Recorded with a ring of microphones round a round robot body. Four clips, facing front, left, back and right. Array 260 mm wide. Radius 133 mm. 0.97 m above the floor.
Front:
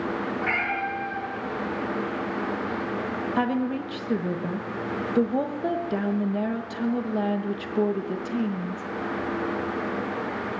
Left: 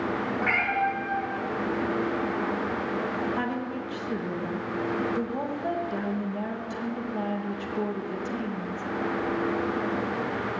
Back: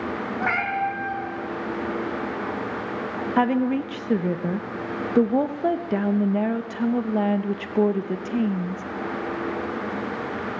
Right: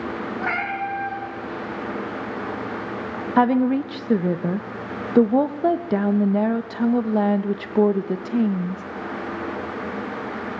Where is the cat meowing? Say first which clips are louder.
Even, back 3 dB; 155° right, 4.5 m.